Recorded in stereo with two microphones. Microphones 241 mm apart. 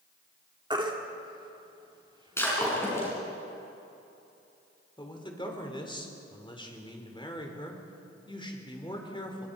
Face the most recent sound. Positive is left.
turn(degrees=20)  # may be behind; listen again after turning